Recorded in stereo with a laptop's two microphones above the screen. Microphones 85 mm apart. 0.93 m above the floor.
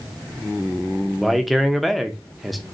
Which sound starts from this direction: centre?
A man speaking, at 1.2 s.